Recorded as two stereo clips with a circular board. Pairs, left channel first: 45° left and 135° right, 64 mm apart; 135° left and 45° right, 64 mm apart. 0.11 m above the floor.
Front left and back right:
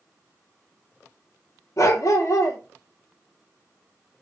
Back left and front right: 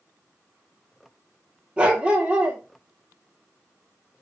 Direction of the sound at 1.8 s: 25° left.